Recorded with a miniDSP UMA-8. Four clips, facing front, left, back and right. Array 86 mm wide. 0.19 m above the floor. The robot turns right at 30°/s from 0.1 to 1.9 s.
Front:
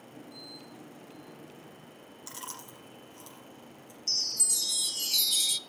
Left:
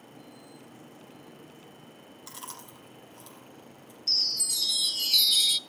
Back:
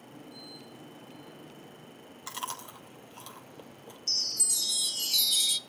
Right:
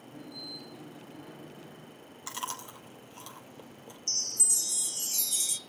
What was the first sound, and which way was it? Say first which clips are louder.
Chewing: right 7 dB, back 7 dB; 130° right.